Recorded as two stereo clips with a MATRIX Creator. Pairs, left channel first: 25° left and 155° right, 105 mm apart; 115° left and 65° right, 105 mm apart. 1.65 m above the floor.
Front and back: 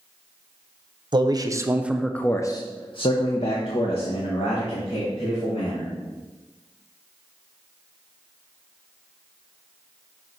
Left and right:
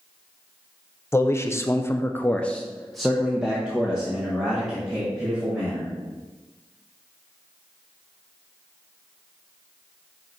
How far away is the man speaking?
About 0.8 m.